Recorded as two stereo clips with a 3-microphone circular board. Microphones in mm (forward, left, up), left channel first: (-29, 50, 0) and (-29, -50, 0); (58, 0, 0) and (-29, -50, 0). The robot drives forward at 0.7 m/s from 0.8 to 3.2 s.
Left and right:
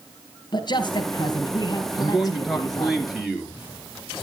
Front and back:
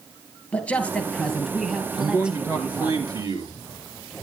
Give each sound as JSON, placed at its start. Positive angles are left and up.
{"t": 0.5, "sound": "a man speaking", "azimuth_deg": 100, "distance_m": 2.0}
{"t": 2.0, "sound": "a man speaking", "azimuth_deg": -175, "distance_m": 1.8}